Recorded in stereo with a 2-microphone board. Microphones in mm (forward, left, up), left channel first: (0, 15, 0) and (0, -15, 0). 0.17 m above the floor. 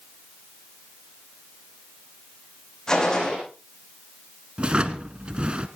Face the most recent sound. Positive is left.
turn(degrees=-35)  # may be behind; listen again after turning